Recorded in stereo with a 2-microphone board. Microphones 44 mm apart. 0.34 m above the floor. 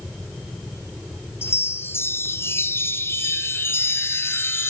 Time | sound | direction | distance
1.4 | a chime | 75° left (ahead or behind) | 3 m